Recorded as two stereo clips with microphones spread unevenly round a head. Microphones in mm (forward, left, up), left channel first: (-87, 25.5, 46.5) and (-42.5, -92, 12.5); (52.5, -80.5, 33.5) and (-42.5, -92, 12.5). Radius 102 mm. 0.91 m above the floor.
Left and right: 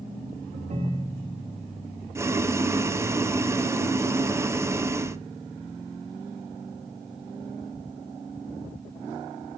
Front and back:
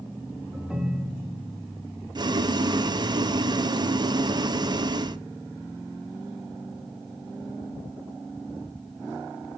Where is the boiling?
135° right, 0.7 m.